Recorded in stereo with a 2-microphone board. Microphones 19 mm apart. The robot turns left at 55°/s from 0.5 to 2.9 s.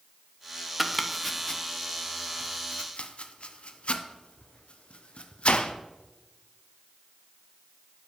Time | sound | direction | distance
0.8 | chopping | 10° right (ahead or behind) | 0.6 m